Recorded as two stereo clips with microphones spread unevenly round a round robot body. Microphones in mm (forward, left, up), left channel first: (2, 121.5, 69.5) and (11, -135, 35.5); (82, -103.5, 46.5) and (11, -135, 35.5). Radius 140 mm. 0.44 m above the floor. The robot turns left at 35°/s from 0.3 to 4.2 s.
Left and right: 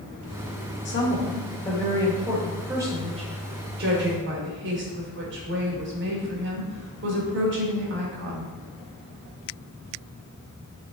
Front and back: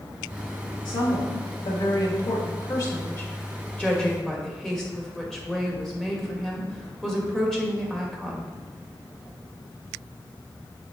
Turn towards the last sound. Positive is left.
turn(degrees=-65)